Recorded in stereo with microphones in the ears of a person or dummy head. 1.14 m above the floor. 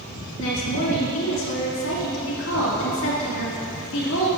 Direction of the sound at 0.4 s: 65° left (ahead or behind).